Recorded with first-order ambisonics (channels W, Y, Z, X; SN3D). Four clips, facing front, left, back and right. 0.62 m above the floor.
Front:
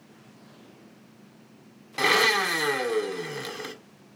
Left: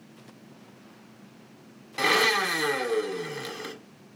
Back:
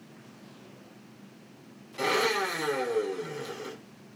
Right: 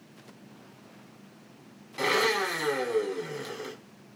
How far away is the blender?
About 0.7 m.